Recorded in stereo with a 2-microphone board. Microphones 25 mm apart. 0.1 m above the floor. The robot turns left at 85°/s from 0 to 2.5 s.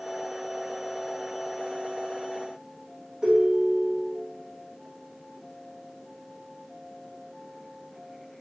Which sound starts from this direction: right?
A ringtone, at 3.2 s.